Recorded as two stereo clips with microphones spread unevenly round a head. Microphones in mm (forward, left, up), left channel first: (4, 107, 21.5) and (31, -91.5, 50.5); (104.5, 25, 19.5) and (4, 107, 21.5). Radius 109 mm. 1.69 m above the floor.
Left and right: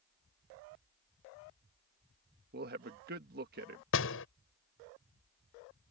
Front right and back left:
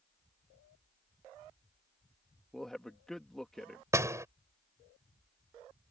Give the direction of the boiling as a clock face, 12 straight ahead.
I don't hear boiling.